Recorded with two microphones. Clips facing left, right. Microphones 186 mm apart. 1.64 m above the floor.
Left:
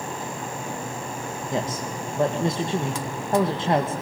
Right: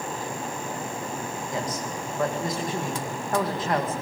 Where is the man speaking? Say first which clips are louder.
Left 4 dB; 30° left (ahead or behind), 2 m.